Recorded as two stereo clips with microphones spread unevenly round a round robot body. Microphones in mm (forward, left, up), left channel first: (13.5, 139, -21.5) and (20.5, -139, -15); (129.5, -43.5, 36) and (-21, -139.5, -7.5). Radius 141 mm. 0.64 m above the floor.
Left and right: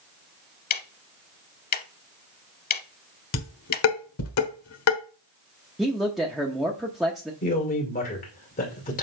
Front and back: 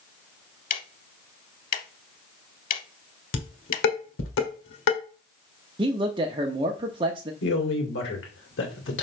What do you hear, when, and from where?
0.7 s ticking: 35° left, 0.8 m
3.3 s dishes clattering: 55° left, 1.3 m
5.8 s a man speaking: straight behind, 0.7 m
7.4 s a man speaking: 35° left, 2.5 m